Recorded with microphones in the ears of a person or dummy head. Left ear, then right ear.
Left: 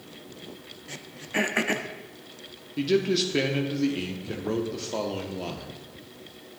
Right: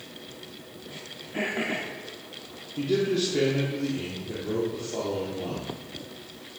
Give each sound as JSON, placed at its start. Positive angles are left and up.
{"t": 0.9, "sound": "throat clearing", "side_deg": 70, "distance_m": 0.5}
{"t": 2.8, "sound": "a man speaking", "side_deg": 50, "distance_m": 0.7}